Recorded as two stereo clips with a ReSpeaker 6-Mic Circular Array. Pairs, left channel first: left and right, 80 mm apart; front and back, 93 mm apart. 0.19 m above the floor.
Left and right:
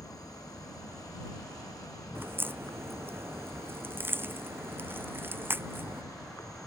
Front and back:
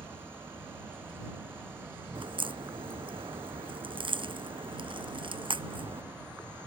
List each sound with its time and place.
0.0 s an insect: 115° left
2.1 s a crack: 155° right